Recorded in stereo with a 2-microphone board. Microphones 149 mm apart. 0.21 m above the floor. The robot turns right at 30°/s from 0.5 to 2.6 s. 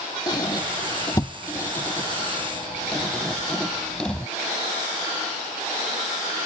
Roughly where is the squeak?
Left.